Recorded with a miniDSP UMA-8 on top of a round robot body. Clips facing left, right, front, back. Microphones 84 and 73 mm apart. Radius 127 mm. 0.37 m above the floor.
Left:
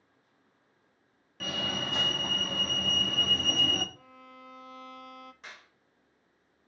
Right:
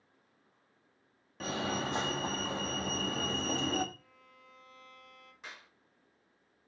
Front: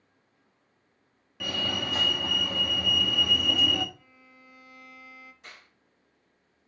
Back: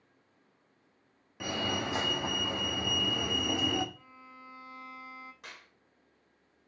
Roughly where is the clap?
Behind.